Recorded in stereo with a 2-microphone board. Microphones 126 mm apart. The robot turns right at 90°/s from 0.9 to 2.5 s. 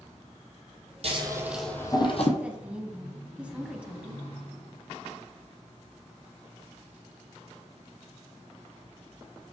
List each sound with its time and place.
1.0 s scissors: 50° right (ahead or behind), 1.3 m; by 2.3 s 60° left (ahead or behind), 1.3 m
2.4 s a woman speaking: 10° right (ahead or behind), 1.0 m